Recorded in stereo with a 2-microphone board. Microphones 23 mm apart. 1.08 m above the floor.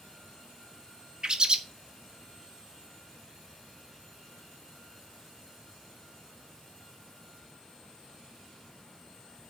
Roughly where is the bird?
Right.